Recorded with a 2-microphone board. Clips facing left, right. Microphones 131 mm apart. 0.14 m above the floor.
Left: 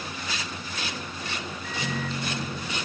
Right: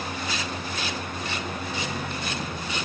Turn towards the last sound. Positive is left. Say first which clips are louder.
# even
turn(degrees=65)  # may be behind; listen again after turning